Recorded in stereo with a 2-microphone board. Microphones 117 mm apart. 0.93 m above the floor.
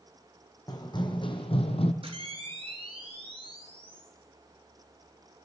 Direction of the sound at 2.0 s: 50° right (ahead or behind).